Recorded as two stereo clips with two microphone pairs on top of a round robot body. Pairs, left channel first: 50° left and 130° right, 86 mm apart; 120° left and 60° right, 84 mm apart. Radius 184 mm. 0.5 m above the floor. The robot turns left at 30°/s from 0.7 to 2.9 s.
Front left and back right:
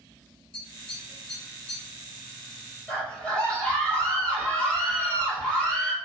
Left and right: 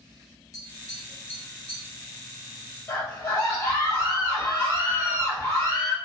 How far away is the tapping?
About 0.9 m.